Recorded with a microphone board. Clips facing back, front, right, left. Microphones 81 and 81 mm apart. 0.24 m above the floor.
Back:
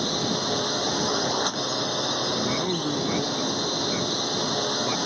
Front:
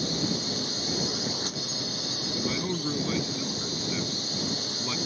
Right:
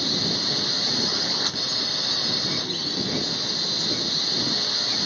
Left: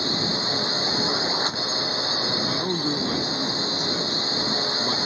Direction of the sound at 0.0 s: 155° left.